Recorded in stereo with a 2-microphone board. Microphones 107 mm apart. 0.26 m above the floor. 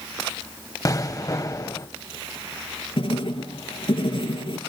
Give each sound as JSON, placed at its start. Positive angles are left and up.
{"t": 0.8, "sound": "an explosion", "side_deg": 35, "distance_m": 1.0}
{"t": 3.0, "sound": "writing", "side_deg": 60, "distance_m": 4.0}